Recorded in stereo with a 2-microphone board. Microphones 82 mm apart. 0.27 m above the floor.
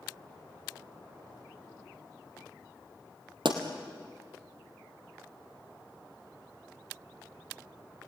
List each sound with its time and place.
3.5 s a pop: 75° right (ahead or behind), 2.5 m